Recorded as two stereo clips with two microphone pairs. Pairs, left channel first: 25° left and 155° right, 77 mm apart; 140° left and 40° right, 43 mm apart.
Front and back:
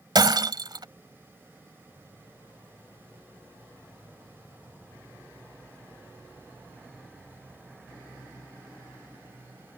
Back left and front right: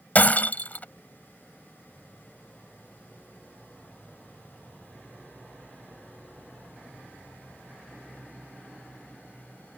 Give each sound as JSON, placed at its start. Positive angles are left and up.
{"t": 0.1, "sound": "breaking glass", "azimuth_deg": -175}